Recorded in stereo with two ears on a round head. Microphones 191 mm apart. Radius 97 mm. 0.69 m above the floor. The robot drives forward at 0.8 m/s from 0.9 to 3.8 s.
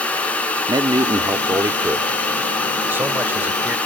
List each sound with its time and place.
0.7 s a man speaking: 20° right (ahead or behind); by 3.8 s 10° right (ahead or behind)